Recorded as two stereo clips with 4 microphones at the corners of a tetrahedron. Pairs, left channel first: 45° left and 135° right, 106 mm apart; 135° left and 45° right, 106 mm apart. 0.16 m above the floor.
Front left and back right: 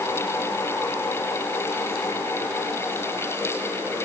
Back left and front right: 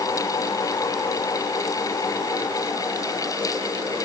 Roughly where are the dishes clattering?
No dishes clattering in this recording.